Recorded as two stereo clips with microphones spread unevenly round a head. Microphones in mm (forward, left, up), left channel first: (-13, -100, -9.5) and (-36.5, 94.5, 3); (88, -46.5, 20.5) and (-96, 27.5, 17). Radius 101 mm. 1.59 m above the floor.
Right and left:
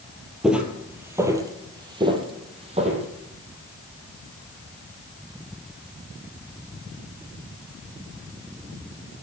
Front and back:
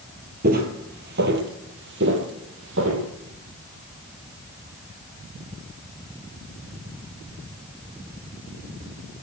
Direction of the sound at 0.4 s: Straight behind.